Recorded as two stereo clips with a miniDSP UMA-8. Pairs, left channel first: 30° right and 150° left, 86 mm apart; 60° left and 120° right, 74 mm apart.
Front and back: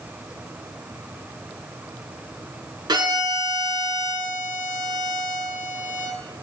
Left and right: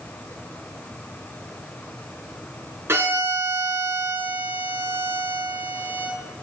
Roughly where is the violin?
Behind.